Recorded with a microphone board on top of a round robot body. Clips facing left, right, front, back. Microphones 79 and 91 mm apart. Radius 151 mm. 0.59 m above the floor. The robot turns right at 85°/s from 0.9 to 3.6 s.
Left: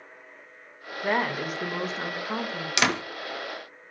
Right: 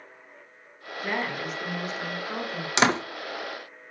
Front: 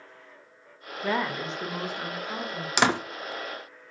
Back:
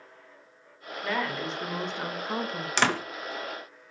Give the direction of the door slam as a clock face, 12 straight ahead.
2 o'clock.